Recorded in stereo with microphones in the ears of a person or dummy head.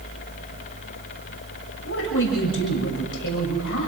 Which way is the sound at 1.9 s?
60° left (ahead or behind).